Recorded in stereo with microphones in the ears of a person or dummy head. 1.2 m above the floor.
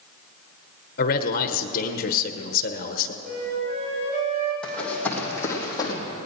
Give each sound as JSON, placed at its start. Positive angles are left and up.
{"t": 1.0, "sound": "a man speaking", "side_deg": 50, "distance_m": 0.9}
{"t": 3.2, "sound": "a flute", "side_deg": -30, "distance_m": 3.5}
{"t": 4.6, "sound": "running footsteps", "side_deg": 10, "distance_m": 3.0}